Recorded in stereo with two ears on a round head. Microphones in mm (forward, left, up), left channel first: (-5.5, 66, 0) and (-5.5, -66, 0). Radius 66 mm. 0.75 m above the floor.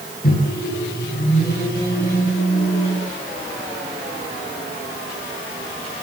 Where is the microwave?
70° left (ahead or behind), 10 m.